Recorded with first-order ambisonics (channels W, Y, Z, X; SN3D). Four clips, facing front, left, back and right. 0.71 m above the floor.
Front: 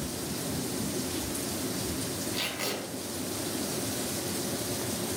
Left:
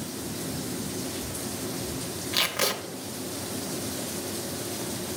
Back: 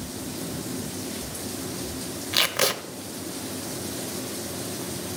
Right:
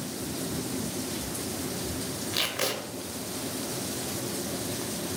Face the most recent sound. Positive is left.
turn(degrees=170)